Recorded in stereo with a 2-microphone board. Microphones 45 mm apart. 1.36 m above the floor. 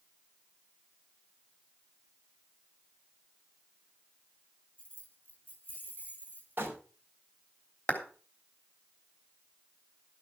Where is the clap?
30° left (ahead or behind), 3 m.